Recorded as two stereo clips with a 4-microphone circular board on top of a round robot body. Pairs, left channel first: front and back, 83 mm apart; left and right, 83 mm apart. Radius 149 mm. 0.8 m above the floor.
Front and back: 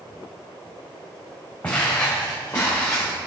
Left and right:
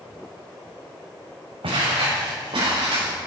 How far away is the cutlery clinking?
No cutlery clinking in this recording.